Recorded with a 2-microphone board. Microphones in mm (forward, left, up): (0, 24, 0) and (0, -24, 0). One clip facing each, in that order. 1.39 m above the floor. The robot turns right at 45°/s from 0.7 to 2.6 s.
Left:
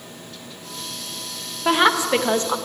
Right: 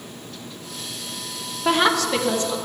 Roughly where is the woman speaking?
Ahead.